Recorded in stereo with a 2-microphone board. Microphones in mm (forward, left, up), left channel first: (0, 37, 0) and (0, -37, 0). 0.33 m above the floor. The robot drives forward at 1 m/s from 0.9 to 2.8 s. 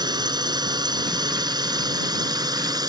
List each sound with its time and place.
0.0 s a drone: 70° right (ahead or behind); by 2.9 s 60° right (ahead or behind)